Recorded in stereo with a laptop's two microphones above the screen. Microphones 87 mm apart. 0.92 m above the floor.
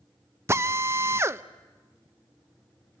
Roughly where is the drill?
Right.